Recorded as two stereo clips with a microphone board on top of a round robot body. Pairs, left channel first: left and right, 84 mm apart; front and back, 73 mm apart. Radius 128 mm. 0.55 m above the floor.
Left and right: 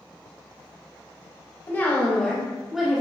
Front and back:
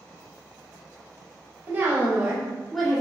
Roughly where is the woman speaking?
Behind left.